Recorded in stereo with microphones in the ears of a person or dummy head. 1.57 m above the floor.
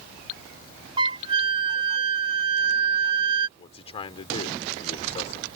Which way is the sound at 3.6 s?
35° left (ahead or behind).